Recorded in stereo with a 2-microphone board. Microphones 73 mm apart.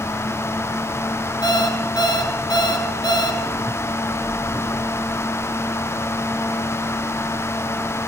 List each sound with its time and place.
1.4 s an alarm clock: 85° left, 3 m